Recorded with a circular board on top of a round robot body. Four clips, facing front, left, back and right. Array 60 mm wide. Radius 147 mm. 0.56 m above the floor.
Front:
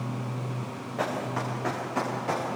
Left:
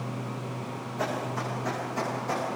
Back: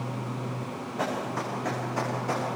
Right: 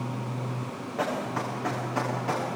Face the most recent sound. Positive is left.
turn(degrees=-45)